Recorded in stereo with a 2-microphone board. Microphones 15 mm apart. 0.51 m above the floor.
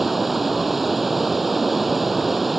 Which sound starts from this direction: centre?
Running water, at 0.0 s.